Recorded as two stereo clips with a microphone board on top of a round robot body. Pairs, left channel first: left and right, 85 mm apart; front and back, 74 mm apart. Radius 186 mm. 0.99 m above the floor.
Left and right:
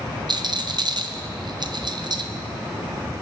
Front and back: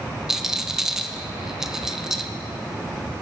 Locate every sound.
0.3 s a rattle: 95° right, 0.9 m